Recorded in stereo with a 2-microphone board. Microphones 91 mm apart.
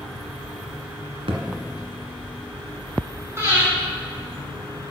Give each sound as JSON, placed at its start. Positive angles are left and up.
{"t": 1.3, "sound": "a thud", "side_deg": -90, "distance_m": 1.1}
{"t": 3.4, "sound": "breathing", "side_deg": -30, "distance_m": 2.5}